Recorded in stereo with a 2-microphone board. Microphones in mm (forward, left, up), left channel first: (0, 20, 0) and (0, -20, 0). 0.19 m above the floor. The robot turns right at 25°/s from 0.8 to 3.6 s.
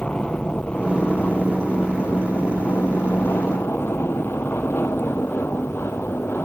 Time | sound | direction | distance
0.0 | an aircraft | 30° left (ahead or behind) | ?